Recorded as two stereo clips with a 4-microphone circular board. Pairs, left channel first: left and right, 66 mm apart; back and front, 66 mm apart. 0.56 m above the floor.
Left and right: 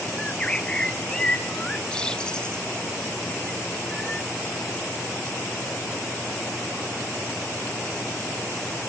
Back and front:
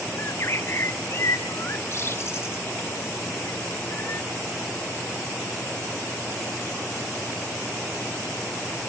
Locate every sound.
0.2 s a bird: 160° left, 0.9 m